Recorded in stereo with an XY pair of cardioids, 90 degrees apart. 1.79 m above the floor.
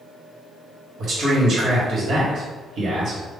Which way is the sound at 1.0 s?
65° right.